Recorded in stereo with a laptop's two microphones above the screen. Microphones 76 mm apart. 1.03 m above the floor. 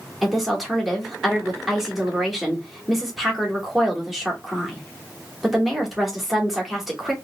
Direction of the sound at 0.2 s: Centre (ahead or behind).